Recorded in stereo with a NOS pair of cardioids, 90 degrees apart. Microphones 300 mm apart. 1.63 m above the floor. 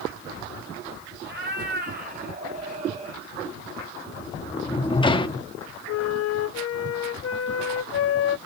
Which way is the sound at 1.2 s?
40° right.